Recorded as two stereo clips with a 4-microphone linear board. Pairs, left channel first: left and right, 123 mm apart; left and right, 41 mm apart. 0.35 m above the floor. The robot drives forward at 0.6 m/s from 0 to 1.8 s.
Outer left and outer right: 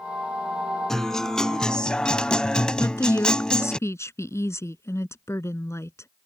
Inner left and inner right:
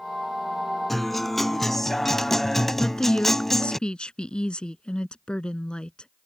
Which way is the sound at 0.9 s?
5° left (ahead or behind).